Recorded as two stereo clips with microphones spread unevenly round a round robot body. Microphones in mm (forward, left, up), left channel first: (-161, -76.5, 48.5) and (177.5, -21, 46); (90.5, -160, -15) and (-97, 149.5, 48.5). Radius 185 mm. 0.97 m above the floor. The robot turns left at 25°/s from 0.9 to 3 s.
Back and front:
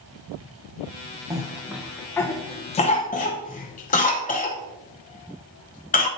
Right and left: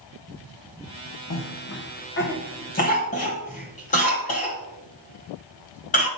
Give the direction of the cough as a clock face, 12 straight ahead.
2 o'clock.